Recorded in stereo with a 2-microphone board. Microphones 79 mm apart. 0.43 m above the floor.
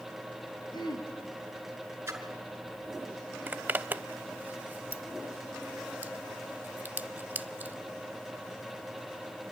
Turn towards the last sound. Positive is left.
turn(degrees=-25)  # may be behind; listen again after turning